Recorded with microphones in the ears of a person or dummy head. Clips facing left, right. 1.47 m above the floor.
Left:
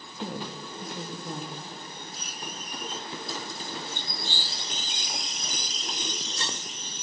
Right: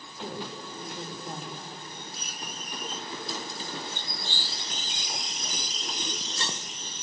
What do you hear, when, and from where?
0.2 s a woman speaking: 70° left (ahead or behind), 2 m